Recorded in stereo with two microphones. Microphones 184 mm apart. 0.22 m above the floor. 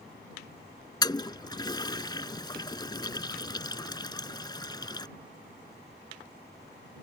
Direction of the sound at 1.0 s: 25° left (ahead or behind).